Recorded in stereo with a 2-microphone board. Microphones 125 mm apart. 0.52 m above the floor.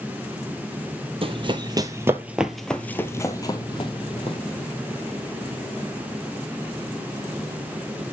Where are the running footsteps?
50° right (ahead or behind), 0.9 m; by 4.4 s 50° left (ahead or behind), 1.3 m.